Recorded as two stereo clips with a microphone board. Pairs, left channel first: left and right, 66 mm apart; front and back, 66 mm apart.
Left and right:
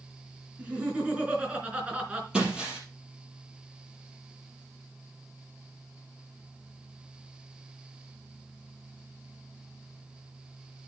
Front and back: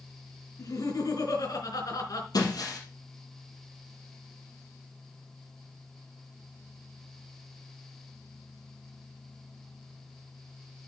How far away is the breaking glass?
About 4 m.